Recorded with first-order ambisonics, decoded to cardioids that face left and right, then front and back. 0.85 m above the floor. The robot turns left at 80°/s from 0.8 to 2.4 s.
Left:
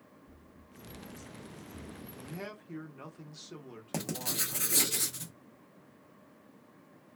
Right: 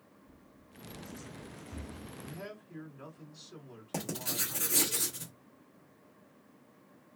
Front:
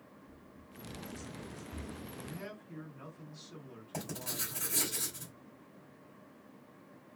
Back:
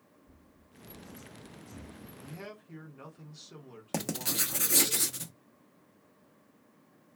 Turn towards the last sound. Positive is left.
turn(degrees=165)